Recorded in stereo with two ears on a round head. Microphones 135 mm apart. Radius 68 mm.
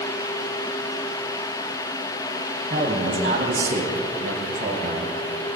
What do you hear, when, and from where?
2.7 s a man speaking: 60° right (ahead or behind), 4 m